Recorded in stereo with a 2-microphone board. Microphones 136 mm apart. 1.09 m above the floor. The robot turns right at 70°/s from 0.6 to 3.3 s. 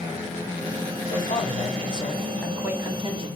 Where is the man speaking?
80° left, 4 m; by 3.3 s 125° right, 4 m.